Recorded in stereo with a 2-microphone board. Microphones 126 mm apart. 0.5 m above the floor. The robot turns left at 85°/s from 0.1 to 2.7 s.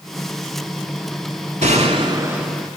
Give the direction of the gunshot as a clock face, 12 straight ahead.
3 o'clock.